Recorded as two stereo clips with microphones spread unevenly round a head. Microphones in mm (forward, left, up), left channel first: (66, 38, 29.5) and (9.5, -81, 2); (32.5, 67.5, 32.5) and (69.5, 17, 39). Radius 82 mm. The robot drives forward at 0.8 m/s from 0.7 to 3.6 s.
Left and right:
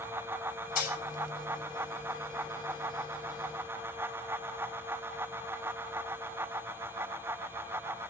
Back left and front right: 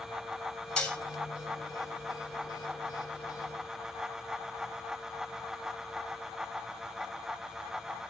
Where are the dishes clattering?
50° left, 3 m; by 1.0 s 55° left, 3 m.